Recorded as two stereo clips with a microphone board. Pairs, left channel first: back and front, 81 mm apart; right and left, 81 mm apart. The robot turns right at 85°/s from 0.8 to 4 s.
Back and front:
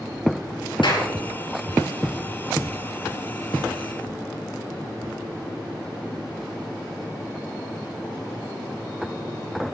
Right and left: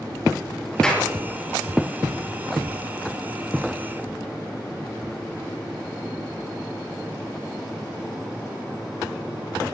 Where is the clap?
170° right, 6 m; by 1.1 s 150° right, 6 m.